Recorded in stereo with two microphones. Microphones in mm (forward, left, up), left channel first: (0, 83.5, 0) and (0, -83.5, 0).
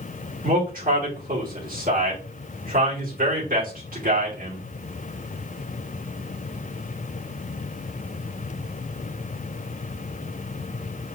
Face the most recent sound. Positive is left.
turn(degrees=-60)  # may be behind; listen again after turning